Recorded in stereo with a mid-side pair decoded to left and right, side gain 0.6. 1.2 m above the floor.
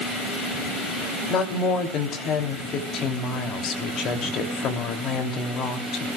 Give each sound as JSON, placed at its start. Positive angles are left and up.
{"t": 1.3, "sound": "a woman speaking", "azimuth_deg": 50, "distance_m": 3.0}